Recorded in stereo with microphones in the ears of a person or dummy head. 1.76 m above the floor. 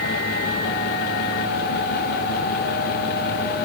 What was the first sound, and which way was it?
Only background noise.